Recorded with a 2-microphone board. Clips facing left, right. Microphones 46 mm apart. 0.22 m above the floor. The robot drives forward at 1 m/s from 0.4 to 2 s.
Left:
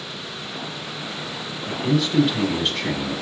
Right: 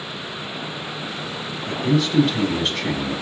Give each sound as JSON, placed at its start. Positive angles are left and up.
{"t": 1.7, "sound": "a man speaking", "side_deg": 10, "distance_m": 1.3}